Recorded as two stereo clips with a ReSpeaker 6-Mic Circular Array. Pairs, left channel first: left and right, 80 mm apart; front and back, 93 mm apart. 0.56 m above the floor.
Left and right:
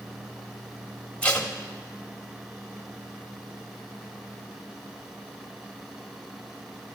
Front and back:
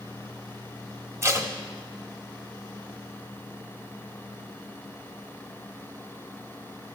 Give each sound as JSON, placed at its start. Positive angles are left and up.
{"t": 1.2, "sound": "tape being pulled", "azimuth_deg": 155, "distance_m": 1.2}